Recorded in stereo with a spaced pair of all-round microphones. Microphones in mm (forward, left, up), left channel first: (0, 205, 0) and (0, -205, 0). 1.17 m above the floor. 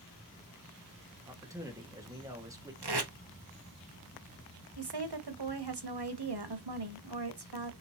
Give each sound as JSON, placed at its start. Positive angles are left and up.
{"t": 1.3, "sound": "a man speaking", "side_deg": -10, "distance_m": 1.0}
{"t": 2.8, "sound": "tape being pulled", "side_deg": -70, "distance_m": 0.8}
{"t": 4.8, "sound": "a woman speaking", "side_deg": -70, "distance_m": 0.9}